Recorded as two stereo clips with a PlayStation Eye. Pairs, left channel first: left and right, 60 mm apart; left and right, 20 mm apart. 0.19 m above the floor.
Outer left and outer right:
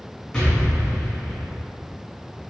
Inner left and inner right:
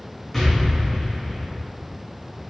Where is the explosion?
10° left (ahead or behind), 2.0 m.